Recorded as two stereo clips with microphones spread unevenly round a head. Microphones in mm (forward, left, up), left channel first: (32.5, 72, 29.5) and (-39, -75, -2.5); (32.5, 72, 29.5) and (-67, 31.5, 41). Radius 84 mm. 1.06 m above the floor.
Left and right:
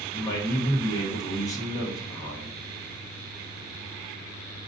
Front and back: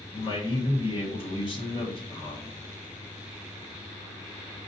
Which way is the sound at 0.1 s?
10° right.